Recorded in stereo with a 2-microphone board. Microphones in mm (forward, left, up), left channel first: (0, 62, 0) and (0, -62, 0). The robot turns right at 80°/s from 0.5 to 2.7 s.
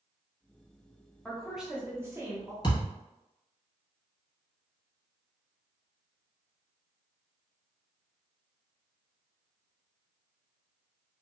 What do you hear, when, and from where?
1.2 s a woman speaking: 5° left (ahead or behind), 0.9 m; by 2.5 s 25° right (ahead or behind), 0.9 m
2.6 s a thud: 35° left (ahead or behind), 1.5 m; by 2.9 s 40° left (ahead or behind), 1.5 m